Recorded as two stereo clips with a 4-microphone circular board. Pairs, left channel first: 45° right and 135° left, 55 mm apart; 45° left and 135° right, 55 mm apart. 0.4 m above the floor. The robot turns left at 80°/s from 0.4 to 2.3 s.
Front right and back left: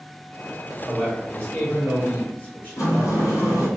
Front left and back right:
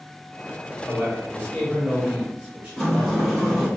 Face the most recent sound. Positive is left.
turn(degrees=-40)